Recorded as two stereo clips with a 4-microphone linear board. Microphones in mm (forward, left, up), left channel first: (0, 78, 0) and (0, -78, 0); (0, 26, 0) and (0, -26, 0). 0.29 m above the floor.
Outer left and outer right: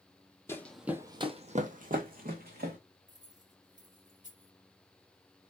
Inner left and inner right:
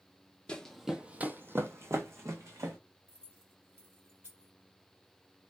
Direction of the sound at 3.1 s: 55° right (ahead or behind).